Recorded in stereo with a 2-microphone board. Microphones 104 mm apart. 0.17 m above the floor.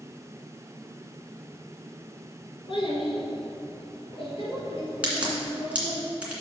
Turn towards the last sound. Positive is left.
turn(degrees=-10)  # may be behind; listen again after turning